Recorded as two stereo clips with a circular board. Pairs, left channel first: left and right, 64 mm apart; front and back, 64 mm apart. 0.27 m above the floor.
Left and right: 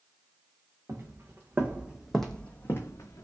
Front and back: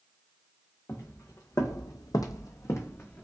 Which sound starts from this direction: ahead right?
Footsteps, at 0.9 s.